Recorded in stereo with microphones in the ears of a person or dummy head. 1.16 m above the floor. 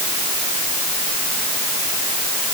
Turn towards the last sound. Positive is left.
No sound to turn to.